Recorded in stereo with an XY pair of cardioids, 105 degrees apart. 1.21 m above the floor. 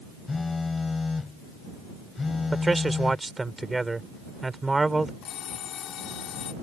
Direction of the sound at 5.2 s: 70° left.